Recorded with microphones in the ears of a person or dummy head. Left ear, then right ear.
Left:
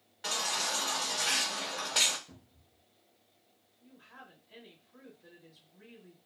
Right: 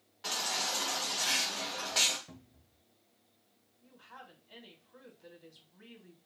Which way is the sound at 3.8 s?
75° right (ahead or behind).